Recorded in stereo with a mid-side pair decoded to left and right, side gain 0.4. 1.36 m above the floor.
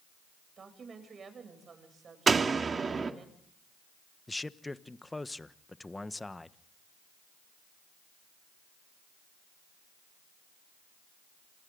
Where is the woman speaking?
50° right, 8.5 m.